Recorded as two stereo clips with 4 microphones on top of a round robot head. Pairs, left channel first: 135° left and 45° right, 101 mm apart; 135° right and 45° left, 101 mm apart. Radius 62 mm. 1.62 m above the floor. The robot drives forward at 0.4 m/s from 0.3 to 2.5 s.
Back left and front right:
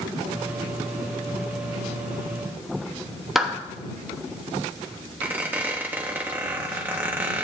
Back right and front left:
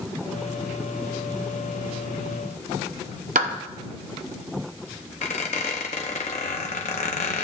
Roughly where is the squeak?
Behind right.